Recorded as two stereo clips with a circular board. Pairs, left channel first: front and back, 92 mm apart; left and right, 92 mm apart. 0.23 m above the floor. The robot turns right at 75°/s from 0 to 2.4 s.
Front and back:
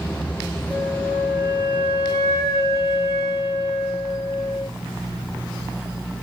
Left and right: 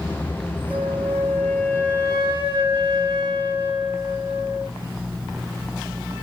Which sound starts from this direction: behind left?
A flute, at 0.7 s.